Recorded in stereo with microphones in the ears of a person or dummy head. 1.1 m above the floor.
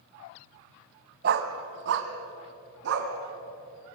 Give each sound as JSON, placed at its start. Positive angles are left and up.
{"t": 1.2, "sound": "a dog barking", "side_deg": -60, "distance_m": 1.8}